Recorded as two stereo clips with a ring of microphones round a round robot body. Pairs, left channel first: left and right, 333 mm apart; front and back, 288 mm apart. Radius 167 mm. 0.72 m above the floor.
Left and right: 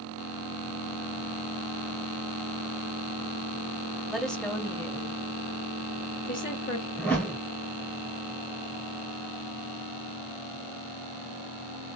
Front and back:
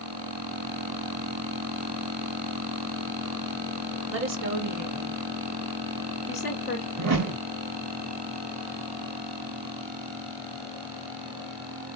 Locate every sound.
4.1 s a woman speaking: straight behind, 1.3 m; by 6.9 s 40° left, 1.3 m
7.0 s a whoosh: 175° left, 1.6 m